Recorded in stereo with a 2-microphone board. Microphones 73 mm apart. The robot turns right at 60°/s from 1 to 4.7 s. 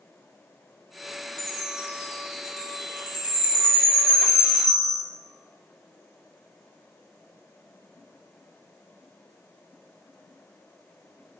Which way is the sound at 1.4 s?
10° left (ahead or behind).